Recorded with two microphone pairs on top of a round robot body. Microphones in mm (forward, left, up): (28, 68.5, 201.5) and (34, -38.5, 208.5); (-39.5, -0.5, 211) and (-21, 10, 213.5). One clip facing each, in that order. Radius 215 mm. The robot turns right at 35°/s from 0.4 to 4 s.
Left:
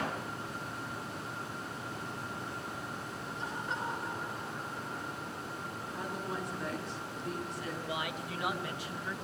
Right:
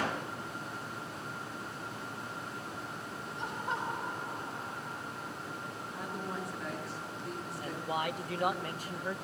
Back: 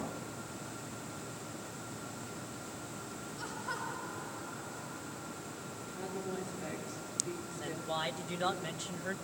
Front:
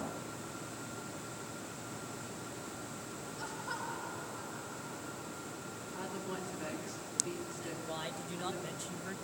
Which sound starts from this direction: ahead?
A woman speaking, at 5.9 s.